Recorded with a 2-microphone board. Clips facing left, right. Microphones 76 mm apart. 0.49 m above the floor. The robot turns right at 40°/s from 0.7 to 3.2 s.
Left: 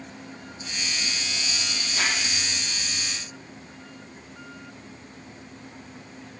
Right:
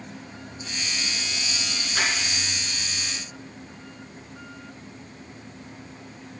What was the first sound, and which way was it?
Crumpling, 60° right (ahead or behind).